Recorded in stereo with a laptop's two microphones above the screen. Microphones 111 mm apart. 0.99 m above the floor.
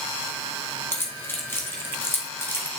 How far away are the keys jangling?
About 1.0 m.